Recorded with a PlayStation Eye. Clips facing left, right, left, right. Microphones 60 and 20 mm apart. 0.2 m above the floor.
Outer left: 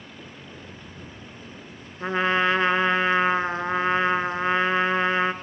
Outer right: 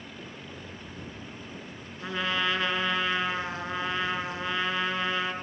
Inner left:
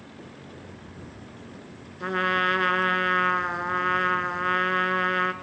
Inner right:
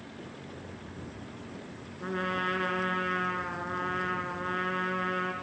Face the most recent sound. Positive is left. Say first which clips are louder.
# outer left 7 dB, inner left 8 dB
turn(degrees=35)  # may be behind; listen again after turning